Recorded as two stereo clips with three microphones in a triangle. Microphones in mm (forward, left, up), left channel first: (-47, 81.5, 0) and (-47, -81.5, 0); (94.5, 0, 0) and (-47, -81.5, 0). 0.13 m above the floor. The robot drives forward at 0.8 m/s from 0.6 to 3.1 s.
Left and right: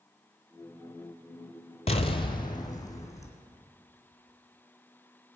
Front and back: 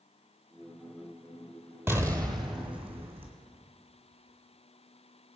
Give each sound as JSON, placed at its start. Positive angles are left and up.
{"t": 1.9, "sound": "an explosion", "azimuth_deg": 135, "distance_m": 0.8}